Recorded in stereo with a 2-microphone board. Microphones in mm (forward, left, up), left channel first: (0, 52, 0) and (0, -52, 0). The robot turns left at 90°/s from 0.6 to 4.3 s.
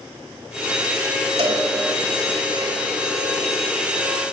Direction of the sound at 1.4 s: 65° right (ahead or behind).